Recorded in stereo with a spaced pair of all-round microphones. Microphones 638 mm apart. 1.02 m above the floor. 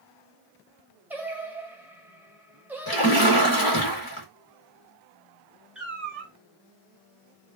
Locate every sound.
1.1 s singing: 5° right (ahead or behind), 0.5 m
2.9 s a splash: 35° left (ahead or behind), 0.9 m
5.8 s a cat meowing: centre (ahead or behind), 1.2 m